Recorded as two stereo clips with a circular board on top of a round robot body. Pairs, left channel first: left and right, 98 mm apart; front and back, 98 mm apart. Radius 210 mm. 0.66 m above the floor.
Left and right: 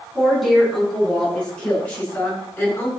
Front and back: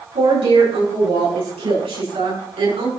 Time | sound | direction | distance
0.1 | a woman speaking | straight behind | 8 m